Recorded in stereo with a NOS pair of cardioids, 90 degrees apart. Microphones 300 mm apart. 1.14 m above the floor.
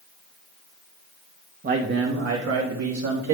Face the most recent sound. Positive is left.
turn(degrees=-65)